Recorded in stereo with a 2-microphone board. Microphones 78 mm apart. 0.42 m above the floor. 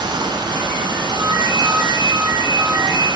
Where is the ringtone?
70° right (ahead or behind), 5.5 m.